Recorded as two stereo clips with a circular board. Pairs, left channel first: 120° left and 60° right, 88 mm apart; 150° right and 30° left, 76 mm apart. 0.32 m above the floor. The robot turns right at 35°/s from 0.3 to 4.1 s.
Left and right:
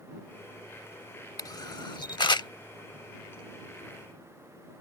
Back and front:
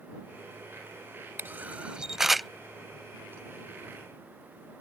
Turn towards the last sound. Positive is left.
turn(degrees=180)